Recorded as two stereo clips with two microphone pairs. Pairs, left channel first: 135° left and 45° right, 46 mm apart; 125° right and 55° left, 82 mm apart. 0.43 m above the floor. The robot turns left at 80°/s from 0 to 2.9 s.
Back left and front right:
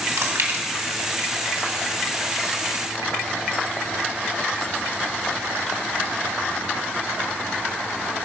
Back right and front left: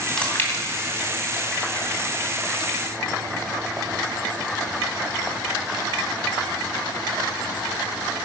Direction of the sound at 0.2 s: 45° right.